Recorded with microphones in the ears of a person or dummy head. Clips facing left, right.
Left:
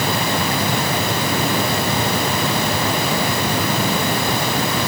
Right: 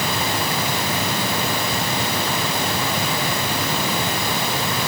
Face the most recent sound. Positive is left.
No sound to turn to.